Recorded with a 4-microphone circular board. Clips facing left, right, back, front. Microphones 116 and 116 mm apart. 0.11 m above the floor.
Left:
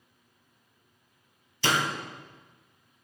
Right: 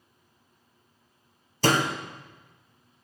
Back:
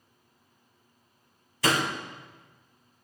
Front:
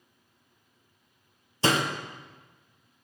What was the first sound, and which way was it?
A door slam, 55° right.